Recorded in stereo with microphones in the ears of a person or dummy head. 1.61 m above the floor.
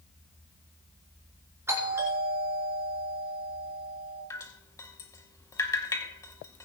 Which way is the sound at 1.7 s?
15° right (ahead or behind).